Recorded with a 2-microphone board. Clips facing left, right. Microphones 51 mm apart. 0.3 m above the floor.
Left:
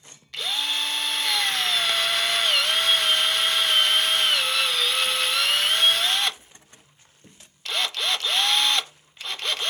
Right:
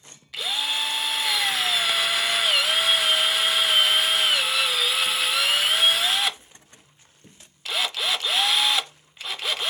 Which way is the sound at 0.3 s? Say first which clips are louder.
Even; 5° right (ahead or behind).